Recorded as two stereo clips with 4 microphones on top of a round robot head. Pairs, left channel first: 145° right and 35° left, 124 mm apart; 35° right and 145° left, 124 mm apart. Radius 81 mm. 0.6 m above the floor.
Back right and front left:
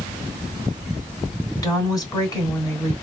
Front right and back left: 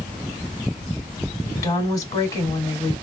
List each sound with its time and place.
1.6 s a woman speaking: 90° right, 2 m